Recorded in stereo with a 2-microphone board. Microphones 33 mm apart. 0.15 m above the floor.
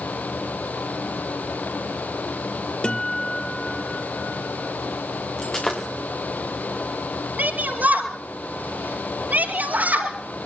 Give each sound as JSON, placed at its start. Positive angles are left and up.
{"t": 2.8, "sound": "a guitar", "side_deg": 30, "distance_m": 1.4}
{"t": 5.4, "sound": "breaking glass", "side_deg": 25, "distance_m": 5.0}
{"t": 7.4, "sound": "a shout", "side_deg": -60, "distance_m": 3.5}